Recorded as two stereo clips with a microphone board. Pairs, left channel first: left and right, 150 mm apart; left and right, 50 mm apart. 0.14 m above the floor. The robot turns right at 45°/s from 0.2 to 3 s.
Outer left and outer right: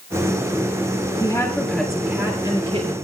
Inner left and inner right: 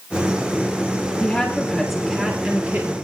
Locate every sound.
1.2 s a woman speaking: 150° left, 3.5 m; by 2.9 s 130° right, 3.5 m